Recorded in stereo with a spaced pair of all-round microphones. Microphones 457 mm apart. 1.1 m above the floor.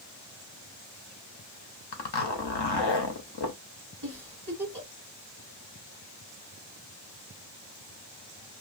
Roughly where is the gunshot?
No gunshot in this recording.